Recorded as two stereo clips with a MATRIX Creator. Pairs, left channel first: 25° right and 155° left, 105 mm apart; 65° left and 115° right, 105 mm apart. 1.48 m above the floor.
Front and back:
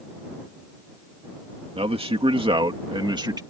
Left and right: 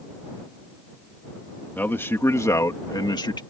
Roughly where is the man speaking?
Behind left.